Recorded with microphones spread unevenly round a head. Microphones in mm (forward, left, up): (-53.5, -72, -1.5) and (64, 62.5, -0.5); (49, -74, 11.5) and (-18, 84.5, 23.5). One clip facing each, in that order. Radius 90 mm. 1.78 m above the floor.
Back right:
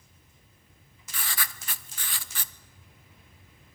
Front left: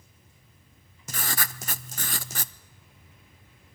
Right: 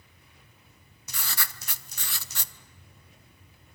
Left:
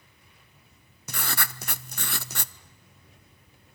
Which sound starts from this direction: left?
Writing, at 1.1 s.